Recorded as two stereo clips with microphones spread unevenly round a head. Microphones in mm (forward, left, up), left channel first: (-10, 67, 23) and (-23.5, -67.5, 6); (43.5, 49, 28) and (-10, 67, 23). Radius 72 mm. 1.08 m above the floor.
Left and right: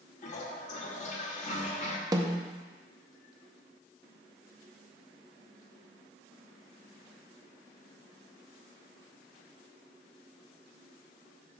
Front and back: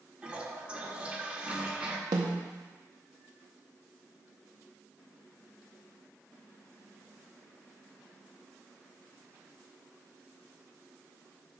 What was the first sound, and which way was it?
A toilet flushing, 105° left.